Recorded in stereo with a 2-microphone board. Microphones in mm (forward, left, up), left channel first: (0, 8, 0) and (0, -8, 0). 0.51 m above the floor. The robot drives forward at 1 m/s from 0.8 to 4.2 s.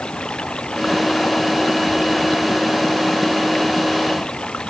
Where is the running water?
65° left (ahead or behind); by 4.7 s 60° left (ahead or behind).